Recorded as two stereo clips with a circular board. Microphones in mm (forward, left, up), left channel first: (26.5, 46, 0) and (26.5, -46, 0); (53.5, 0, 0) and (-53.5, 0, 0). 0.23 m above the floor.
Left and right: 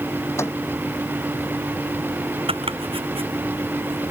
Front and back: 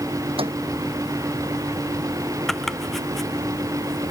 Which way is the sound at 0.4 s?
150° left.